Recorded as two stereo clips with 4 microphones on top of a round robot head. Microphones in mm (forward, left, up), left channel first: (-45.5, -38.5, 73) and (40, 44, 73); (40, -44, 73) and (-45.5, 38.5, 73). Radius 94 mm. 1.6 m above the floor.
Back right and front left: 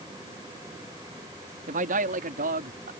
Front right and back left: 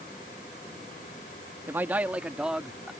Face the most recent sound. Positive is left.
turn(degrees=50)